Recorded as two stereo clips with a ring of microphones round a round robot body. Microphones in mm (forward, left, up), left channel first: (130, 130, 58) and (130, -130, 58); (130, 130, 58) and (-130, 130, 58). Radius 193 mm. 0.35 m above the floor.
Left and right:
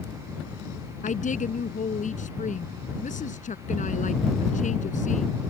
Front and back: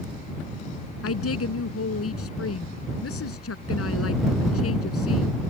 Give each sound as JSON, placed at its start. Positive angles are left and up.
{"t": 1.0, "sound": "a woman speaking", "azimuth_deg": 30}